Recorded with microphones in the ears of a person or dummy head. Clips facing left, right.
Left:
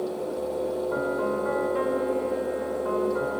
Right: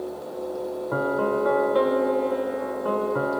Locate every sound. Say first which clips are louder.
0.9 s a piano: right 2 dB; 55° right (ahead or behind), 1.1 m